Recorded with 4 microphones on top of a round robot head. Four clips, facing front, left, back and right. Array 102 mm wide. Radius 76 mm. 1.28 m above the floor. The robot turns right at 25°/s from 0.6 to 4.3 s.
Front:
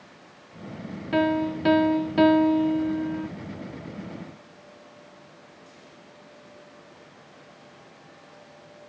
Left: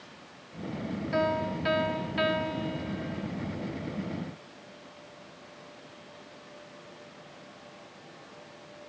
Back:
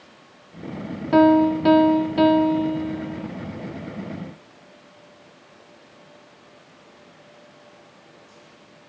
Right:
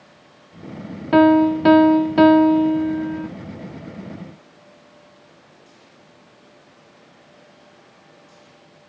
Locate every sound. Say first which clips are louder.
1.1 s a piano: right 16 dB, back 9 dB; 115° right, 0.8 m; by 3.3 s 60° right, 0.8 m